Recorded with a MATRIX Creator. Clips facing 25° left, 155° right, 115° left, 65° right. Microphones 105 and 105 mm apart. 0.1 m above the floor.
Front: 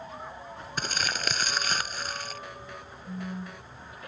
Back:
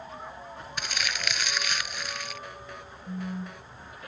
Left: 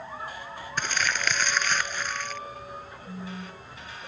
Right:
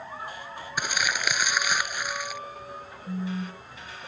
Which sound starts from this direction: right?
A phone buzzing, at 3.1 s.